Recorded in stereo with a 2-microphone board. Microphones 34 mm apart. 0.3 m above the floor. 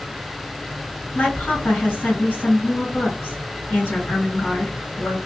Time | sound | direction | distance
1.1 | a woman speaking | 45° left (ahead or behind) | 1.9 m